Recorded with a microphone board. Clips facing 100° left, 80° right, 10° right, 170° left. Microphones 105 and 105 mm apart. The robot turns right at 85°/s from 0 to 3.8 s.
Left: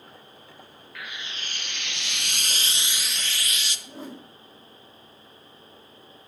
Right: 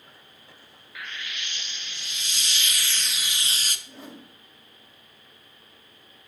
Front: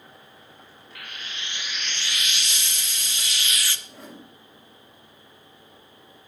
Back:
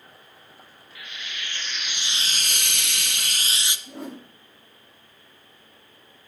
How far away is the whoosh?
About 1.8 m.